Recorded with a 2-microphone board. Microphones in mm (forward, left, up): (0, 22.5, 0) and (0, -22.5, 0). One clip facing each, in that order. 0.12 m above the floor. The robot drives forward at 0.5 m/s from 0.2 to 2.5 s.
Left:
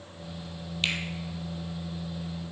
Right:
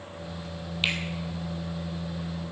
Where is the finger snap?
10° right (ahead or behind), 3.5 m.